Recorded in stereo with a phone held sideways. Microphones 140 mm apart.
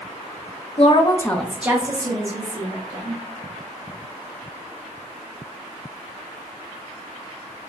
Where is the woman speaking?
50° left (ahead or behind), 0.5 m; by 3.2 s 40° right (ahead or behind), 1.5 m.